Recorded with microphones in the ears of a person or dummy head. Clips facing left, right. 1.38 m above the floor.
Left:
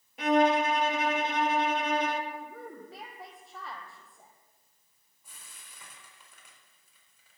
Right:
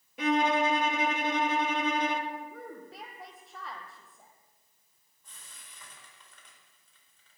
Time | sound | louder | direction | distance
0.2 | a violin | left 2 dB | 70° right (ahead or behind) | 1.0 m
2.3 | a woman speaking | right 1 dB | 5° left (ahead or behind) | 1.5 m
5.2 | frying | even | 5° left (ahead or behind) | 4.5 m